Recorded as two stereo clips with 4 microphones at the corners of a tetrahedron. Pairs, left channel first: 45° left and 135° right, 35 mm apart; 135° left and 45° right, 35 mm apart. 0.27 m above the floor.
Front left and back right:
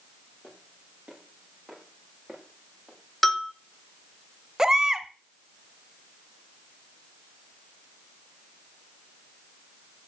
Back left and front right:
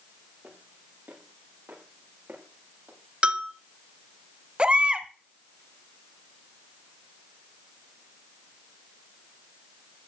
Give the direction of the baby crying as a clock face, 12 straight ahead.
2 o'clock.